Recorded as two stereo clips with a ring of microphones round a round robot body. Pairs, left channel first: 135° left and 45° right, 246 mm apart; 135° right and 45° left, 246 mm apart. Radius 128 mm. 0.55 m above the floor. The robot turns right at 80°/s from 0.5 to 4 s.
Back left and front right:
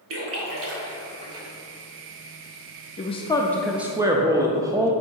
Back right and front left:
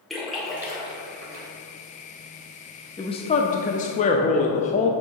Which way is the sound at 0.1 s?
45° right.